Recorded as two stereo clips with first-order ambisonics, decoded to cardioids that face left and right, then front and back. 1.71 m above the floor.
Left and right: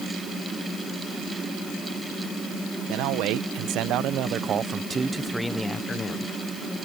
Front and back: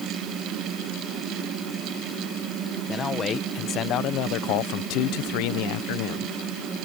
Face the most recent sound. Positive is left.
turn(degrees=25)